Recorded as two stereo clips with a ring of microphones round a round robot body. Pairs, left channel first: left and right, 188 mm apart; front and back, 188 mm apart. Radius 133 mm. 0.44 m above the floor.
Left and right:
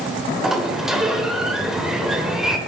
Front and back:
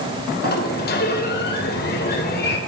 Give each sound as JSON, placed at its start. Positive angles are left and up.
{"t": 0.4, "sound": "a sliding door", "azimuth_deg": -5, "distance_m": 1.9}